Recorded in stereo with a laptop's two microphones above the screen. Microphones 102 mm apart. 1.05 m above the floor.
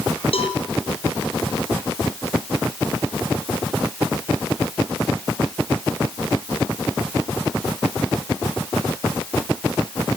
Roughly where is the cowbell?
Left.